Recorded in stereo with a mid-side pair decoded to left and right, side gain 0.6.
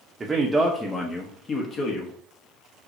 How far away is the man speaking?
About 0.7 m.